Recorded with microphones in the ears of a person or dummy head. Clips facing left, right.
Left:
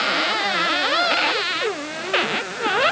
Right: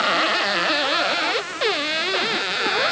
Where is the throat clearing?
I don't hear throat clearing.